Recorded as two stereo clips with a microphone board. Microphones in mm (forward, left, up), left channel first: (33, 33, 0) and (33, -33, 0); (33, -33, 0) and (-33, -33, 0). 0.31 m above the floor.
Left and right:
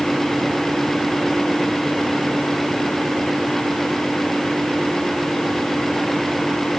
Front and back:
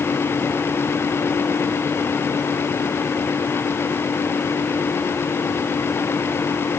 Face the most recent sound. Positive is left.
No sound to turn to.